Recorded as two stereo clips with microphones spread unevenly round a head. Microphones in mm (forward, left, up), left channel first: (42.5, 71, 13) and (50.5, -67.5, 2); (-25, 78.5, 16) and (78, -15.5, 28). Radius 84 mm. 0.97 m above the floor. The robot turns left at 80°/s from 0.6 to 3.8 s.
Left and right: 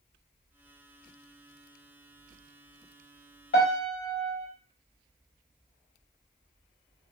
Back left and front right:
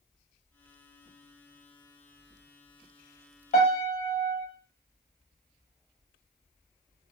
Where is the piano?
105° left, 1.1 m; by 4.5 s 85° left, 1.1 m.